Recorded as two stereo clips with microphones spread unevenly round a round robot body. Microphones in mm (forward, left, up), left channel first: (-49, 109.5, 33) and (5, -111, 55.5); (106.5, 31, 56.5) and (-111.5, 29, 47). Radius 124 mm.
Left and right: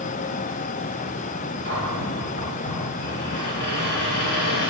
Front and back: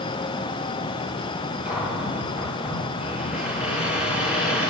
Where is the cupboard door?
95° left, 8 m.